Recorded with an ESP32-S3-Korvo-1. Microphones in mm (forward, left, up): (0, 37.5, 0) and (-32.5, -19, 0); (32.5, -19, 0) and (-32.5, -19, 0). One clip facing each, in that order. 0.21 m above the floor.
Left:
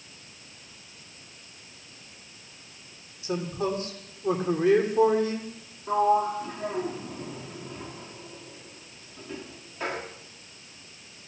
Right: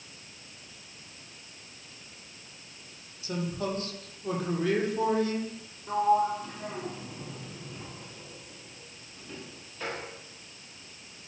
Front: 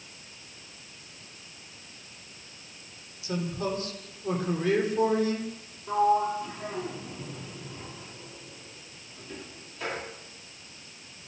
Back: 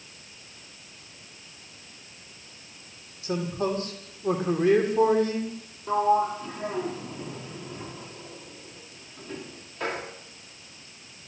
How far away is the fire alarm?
No fire alarm in this recording.